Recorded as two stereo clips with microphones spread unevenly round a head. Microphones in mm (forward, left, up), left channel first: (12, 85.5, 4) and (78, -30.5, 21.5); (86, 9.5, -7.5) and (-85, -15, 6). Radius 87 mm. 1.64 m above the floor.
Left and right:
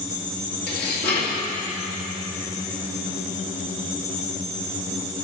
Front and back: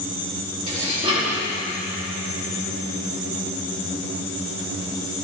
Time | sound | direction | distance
0.7 | dishes clattering | 130° left | 2 m